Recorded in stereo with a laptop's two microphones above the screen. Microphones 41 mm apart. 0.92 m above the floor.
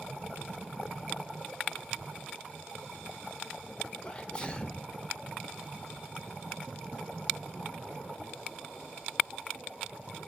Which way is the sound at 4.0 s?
25° left (ahead or behind).